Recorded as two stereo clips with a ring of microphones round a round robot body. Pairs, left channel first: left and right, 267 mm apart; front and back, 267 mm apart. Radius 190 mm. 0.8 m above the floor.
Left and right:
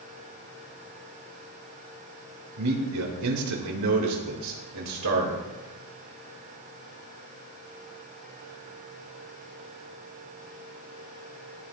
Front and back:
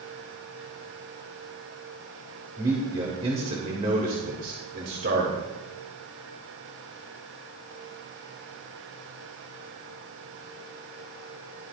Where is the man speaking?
100° right, 3 m; by 5.4 s 125° right, 3.5 m.